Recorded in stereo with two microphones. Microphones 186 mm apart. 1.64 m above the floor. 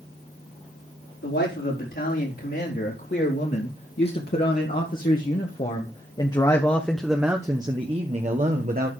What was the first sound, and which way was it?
A man speaking, 70° left (ahead or behind).